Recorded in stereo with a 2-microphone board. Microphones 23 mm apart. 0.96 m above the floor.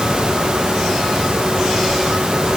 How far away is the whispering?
No whispering in this recording.